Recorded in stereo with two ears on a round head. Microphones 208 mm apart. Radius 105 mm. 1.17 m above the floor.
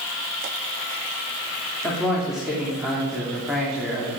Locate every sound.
1.8 s a man speaking: centre (ahead or behind), 3 m